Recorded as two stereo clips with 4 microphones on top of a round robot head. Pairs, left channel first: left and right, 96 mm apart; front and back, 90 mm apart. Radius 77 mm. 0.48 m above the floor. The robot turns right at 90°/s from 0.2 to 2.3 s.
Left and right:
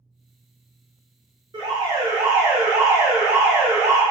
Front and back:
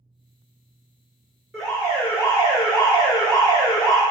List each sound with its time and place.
1.5 s an alarm: 90° right, 1.8 m; by 4.0 s 20° right, 1.8 m